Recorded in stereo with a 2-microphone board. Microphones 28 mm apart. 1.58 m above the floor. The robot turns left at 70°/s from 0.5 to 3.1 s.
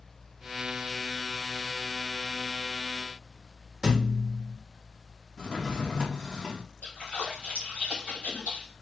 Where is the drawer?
30° left (ahead or behind), 1.1 m.